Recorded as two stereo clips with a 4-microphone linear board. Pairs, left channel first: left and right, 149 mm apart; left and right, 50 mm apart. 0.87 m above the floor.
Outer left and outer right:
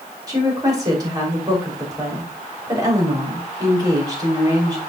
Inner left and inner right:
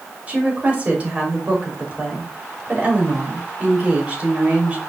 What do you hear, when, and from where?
0.3 s a woman speaking: 25° right (ahead or behind), 3 m